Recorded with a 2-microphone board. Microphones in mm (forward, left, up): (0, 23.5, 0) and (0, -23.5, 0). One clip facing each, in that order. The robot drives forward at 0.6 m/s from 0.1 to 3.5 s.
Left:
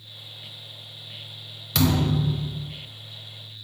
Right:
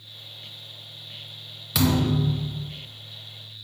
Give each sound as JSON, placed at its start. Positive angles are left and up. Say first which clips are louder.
{"t": 1.8, "sound": "a thud", "louder": "even", "side_deg": -5, "distance_m": 0.5}